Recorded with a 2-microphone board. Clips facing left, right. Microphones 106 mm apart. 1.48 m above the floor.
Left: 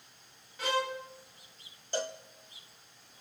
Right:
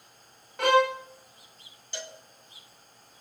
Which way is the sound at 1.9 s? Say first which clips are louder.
Left 7 dB; 40° left (ahead or behind).